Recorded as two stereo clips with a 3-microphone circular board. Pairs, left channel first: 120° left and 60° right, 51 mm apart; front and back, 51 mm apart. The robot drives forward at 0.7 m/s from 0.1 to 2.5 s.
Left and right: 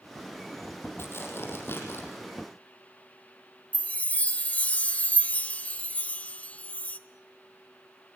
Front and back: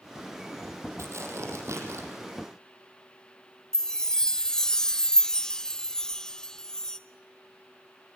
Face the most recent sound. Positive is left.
turn(degrees=75)